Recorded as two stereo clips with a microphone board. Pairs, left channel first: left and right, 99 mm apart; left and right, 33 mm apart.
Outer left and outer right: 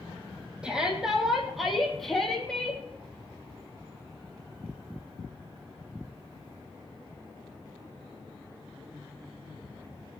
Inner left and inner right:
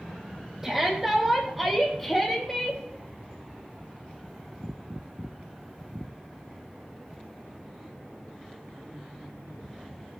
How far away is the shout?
About 4.5 m.